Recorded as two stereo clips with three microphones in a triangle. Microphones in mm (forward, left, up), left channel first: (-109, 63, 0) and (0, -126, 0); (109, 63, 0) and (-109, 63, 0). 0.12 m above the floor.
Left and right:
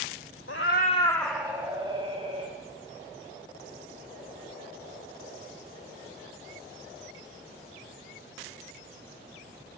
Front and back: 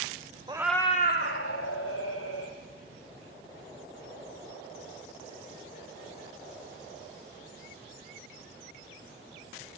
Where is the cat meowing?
110° left, 0.6 m; by 2.5 s straight ahead, 2.0 m.